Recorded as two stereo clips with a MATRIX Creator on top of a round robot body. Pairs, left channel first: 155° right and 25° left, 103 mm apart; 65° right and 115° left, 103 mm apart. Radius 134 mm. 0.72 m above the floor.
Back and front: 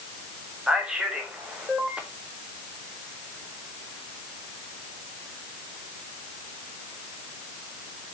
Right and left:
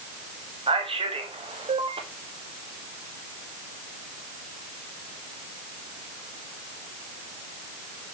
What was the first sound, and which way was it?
A man speaking, 105° left.